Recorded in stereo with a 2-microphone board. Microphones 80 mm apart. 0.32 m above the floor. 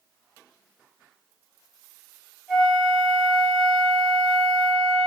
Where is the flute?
5° right (ahead or behind), 1.5 m.